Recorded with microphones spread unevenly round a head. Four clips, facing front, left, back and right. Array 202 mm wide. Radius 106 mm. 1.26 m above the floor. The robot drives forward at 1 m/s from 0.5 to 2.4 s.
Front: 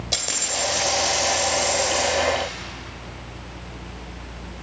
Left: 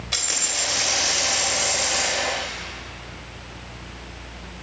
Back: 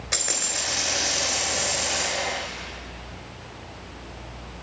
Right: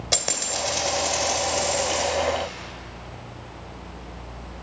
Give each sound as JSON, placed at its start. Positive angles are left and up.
{"t": 0.1, "sound": "a dropped coin", "azimuth_deg": -75, "distance_m": 2.5}